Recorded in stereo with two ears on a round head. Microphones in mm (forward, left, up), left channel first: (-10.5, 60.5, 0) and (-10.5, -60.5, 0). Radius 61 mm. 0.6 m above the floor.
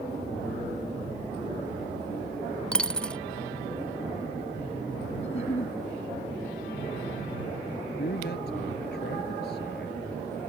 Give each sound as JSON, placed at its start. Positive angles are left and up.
{"t": 2.7, "sound": "a dropped coin", "side_deg": 5}
{"t": 5.2, "sound": "a giggle", "side_deg": 50}
{"t": 8.0, "sound": "a man speaking", "side_deg": 85}